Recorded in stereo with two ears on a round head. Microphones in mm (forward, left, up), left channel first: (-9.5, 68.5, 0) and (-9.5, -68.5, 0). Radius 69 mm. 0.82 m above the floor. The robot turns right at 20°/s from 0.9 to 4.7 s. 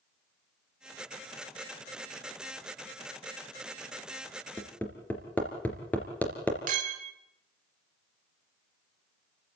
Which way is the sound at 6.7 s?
60° right (ahead or behind).